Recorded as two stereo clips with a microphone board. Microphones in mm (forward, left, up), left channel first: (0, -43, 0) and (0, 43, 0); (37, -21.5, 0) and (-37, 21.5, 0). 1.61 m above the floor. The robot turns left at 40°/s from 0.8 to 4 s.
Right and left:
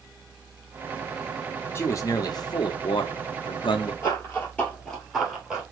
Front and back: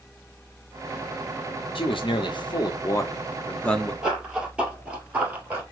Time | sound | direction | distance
1.8 | a man speaking | 30° right | 0.9 m
4.0 | running footsteps | 135° right | 2.0 m